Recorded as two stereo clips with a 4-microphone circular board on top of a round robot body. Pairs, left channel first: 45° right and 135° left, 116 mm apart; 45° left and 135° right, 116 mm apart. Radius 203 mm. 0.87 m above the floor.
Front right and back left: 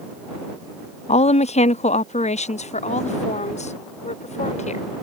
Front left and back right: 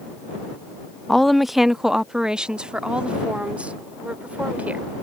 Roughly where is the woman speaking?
Ahead right.